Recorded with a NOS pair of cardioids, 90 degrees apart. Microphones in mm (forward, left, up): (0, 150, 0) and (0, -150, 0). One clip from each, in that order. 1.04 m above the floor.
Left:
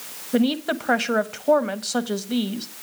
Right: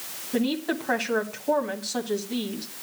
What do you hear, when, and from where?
0.3 s a woman speaking: 35° left, 1.3 m